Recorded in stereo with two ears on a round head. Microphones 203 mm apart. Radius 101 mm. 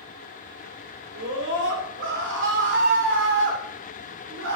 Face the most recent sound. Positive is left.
turn(degrees=-55)  # may be behind; listen again after turning